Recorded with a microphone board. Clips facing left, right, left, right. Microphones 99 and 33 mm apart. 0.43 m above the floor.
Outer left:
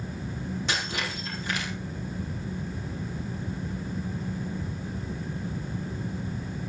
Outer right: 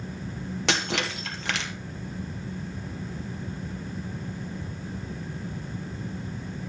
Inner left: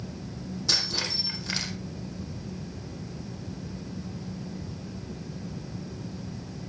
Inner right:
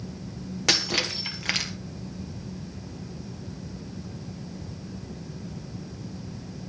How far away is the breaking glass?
About 4.5 m.